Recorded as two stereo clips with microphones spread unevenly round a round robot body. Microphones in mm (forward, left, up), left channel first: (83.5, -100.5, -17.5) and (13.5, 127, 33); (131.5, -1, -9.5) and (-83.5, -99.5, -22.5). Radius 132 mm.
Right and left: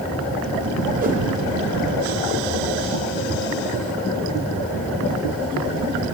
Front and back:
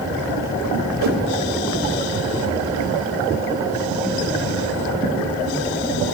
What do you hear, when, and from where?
1.0 s a whoosh: 170° left, 1.2 m